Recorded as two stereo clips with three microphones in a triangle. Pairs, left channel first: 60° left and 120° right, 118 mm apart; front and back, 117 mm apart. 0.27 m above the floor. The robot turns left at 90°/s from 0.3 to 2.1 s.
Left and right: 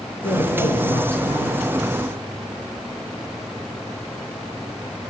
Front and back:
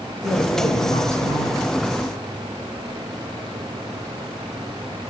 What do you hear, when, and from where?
0.2 s a woman speaking: 100° left, 4.5 m; by 1.7 s 25° right, 4.5 m